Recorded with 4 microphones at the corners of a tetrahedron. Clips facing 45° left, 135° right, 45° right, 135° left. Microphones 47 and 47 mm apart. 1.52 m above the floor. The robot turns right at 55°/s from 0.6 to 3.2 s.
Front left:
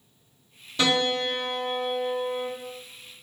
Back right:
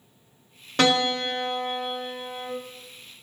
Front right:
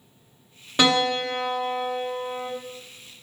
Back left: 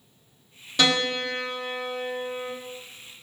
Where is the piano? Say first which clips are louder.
Back right 2 dB, front right 3 dB; 105° right, 1.3 m; by 2.5 s 10° right, 1.3 m.